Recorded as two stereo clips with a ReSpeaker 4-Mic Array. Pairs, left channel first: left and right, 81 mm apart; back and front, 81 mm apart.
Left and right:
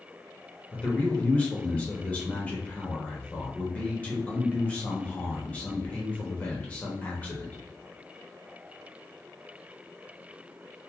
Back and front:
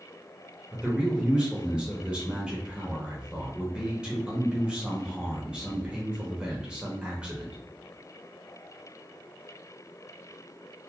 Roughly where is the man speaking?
Ahead left.